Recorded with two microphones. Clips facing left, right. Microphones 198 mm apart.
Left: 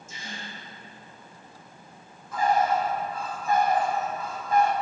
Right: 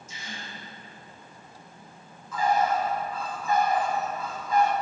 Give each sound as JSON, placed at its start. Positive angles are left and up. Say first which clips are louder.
{"t": 0.1, "sound": "a gasp", "louder": "left 1 dB", "side_deg": 55, "distance_m": 3.0}
{"t": 2.3, "sound": "a bird", "louder": "left 1 dB", "side_deg": 70, "distance_m": 2.5}